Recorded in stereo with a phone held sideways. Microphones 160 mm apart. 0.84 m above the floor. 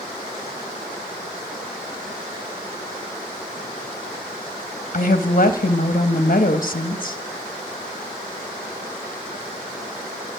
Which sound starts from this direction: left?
A woman speaking, at 4.9 s.